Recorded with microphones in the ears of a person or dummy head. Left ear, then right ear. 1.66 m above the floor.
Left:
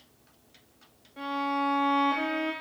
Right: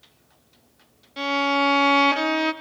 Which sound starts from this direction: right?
A violin, at 1.2 s.